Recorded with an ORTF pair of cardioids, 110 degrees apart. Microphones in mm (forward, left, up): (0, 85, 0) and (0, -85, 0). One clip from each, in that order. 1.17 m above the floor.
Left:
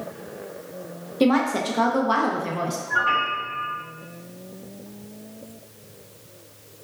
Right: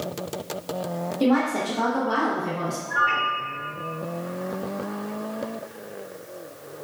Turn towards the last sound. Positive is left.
turn(degrees=60)